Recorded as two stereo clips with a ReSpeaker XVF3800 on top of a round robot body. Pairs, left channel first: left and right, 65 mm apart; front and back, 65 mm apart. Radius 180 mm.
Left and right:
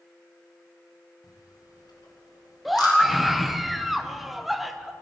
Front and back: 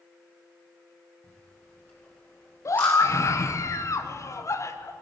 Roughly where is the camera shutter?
Ahead left.